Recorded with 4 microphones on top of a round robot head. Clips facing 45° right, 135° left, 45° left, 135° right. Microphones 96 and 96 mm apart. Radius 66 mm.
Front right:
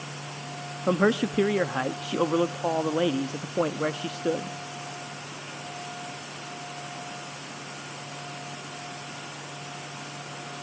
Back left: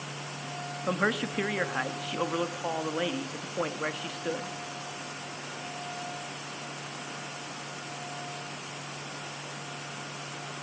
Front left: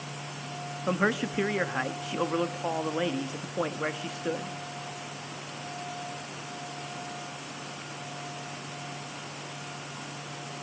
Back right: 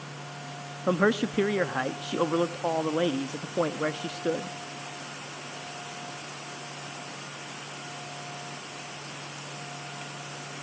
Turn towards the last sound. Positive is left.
turn(degrees=-80)